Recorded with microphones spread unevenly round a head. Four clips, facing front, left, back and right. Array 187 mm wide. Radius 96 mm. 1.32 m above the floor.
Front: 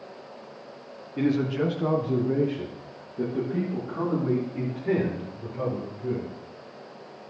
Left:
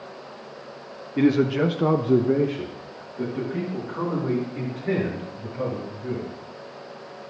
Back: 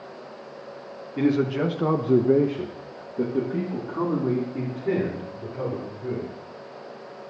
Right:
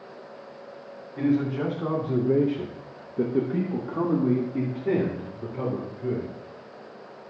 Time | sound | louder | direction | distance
1.2 | a man speaking | left 5 dB, back 2 dB | 105° left | 1.3 m